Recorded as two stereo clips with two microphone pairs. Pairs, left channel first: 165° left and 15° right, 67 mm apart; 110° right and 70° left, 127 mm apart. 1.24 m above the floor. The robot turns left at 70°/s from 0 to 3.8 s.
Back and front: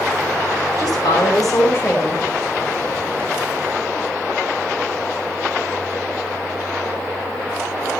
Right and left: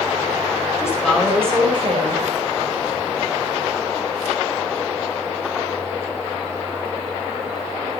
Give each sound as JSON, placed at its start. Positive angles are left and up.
{"t": 0.8, "sound": "a woman speaking", "azimuth_deg": -175, "distance_m": 4.5}